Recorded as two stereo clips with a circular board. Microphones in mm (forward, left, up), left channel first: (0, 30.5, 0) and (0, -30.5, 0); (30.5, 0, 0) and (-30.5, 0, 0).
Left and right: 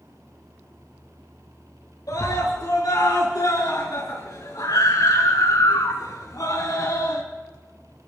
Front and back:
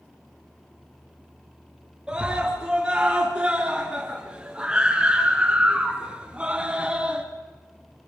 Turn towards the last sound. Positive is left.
turn(degrees=110)